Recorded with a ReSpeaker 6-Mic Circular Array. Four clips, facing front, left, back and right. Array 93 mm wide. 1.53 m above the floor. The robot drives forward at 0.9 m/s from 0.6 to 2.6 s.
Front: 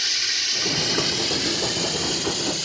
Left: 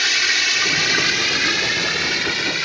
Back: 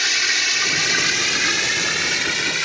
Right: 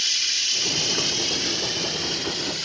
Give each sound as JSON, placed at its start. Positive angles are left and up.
{"t": 0.0, "sound": "running water", "azimuth_deg": 125}